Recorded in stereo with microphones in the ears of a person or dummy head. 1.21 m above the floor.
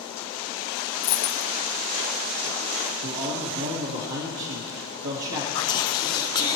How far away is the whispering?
About 0.6 m.